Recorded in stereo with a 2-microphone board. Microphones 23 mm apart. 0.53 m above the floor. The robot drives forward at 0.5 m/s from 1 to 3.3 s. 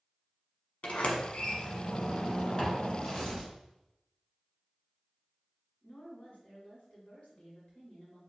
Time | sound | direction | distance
0.8 | a sliding door | 70° left (ahead or behind) | 0.9 m
3.0 | tearing paper | 25° left (ahead or behind) | 1.4 m
5.8 | a woman speaking | 65° left (ahead or behind) | 1.7 m